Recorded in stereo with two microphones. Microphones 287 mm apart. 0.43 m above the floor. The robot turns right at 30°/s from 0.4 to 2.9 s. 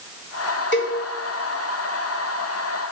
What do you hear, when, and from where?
0.7 s a cowbell: 40° left (ahead or behind), 1.2 m; by 1.0 s 45° left (ahead or behind), 1.2 m